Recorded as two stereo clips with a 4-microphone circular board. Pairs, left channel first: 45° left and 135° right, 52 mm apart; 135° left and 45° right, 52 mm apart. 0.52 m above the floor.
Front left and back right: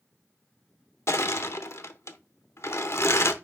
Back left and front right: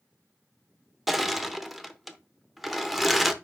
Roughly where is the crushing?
Ahead left.